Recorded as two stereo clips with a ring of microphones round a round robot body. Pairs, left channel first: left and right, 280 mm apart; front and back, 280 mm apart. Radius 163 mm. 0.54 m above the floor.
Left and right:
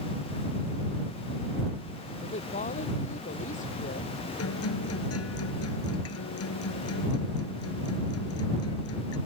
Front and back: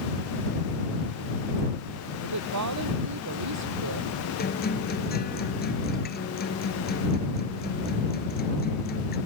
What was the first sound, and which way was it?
A woman speaking, 160° left.